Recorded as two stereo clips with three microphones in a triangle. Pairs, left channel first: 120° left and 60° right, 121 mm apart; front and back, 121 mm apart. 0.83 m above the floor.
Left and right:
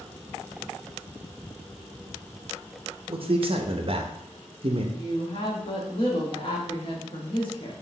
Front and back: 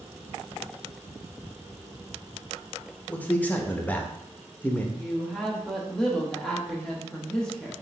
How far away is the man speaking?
About 0.6 m.